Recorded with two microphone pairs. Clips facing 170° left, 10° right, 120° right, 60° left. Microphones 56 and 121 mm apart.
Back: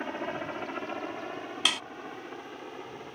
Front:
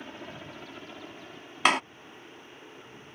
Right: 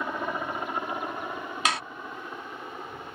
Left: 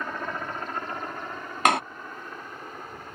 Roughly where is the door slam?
Ahead left.